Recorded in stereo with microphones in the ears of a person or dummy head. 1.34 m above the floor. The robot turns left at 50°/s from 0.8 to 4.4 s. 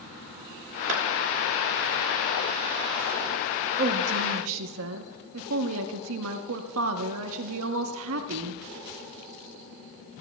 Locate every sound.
0.9 s a clap: 55° right (ahead or behind), 2 m; by 1.0 s 50° right (ahead or behind), 2 m
3.8 s a woman speaking: 45° right, 0.9 m; by 8.6 s 75° right, 0.9 m